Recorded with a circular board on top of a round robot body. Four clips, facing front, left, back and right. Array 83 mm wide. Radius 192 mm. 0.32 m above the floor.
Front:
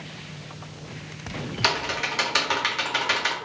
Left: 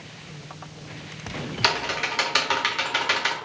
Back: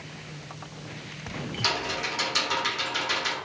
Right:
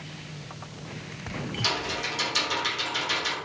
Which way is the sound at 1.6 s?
60° left.